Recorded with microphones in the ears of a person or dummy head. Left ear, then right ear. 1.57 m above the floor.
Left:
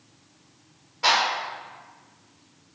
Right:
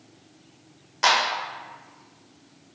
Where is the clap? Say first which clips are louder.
Right 1 dB; 65° right (ahead or behind), 1.2 m.